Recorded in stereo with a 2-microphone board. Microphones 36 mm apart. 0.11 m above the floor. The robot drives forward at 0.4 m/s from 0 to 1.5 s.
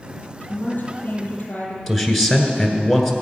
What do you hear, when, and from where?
0.5 s a woman speaking: 50° left (ahead or behind), 3.5 m; by 1.8 s 45° left (ahead or behind), 3.5 m
1.9 s a man speaking: centre (ahead or behind), 1.5 m